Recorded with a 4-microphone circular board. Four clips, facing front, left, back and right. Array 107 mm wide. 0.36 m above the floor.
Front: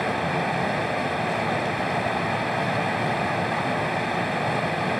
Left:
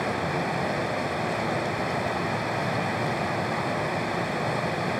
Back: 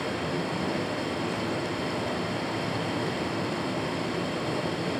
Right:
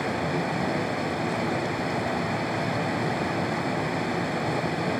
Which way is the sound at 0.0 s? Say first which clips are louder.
Even, front 5 dB; 10° left.